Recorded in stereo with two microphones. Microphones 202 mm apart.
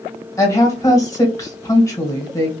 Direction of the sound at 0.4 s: 20° left (ahead or behind).